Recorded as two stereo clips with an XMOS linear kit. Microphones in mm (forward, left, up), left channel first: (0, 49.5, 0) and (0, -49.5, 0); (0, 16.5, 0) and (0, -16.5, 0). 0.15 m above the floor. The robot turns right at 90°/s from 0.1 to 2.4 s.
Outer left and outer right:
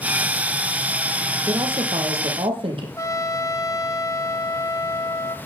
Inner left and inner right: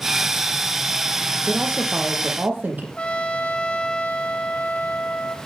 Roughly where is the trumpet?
Left.